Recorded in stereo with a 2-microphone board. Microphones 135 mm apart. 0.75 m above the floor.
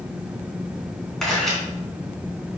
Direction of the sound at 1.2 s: Centre (ahead or behind).